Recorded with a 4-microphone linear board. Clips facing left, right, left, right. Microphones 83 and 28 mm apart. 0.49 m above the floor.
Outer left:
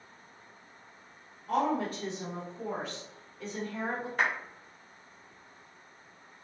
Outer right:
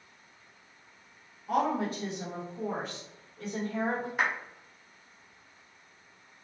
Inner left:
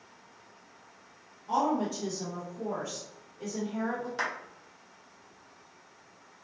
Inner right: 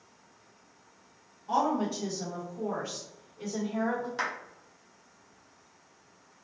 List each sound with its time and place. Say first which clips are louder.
1.5 s a woman speaking: outer right 1 dB, even; 10° right (ahead or behind), 0.9 m; by 4.1 s 60° right (ahead or behind), 1.6 m
4.2 s a clap: outer left 1 dB, inner left 2 dB; 10° right (ahead or behind), 1.0 m